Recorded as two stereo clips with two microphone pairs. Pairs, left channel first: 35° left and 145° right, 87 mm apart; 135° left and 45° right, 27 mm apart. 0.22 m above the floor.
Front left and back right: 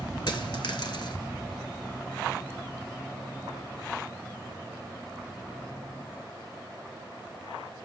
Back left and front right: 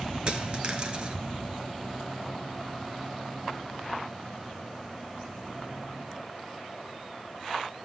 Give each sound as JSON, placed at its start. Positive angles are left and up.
{"t": 0.3, "sound": "a dropped coin", "azimuth_deg": 10, "distance_m": 1.0}